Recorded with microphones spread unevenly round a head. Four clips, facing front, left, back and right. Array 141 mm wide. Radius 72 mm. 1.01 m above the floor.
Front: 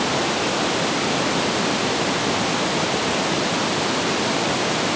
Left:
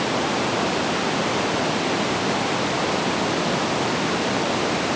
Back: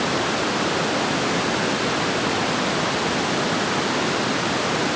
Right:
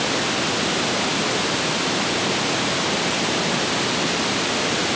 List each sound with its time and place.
Only background noise.